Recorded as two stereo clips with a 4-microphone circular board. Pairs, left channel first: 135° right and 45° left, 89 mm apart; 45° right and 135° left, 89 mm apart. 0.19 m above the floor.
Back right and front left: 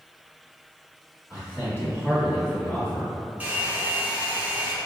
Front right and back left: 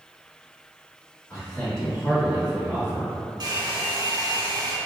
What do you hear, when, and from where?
1.3 s a man speaking: 10° right, 1.8 m; by 3.1 s 110° left, 2 m
3.4 s a hair dryer: 115° left, 0.7 m